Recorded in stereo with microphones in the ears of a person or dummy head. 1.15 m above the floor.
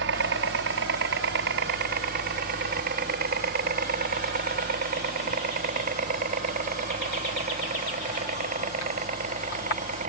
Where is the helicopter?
60° right (ahead or behind); by 10.1 s 45° right (ahead or behind).